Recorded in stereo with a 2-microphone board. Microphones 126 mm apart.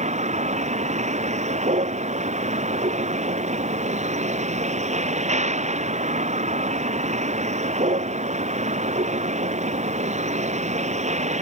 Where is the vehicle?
65° right (ahead or behind).